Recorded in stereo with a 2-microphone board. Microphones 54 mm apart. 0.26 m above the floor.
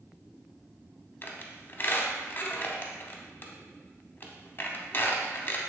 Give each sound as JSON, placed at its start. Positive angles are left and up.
{"t": 1.2, "sound": "a squeak", "side_deg": 45, "distance_m": 0.6}